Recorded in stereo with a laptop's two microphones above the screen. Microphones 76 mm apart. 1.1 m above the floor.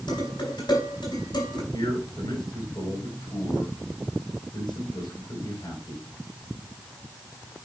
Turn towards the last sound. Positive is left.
turn(degrees=65)  # may be behind; listen again after turning